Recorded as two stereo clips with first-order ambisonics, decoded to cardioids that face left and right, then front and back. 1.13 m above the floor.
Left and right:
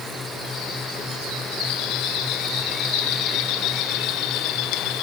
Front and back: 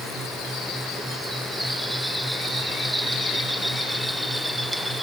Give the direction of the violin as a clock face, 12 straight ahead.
I don't hear a violin.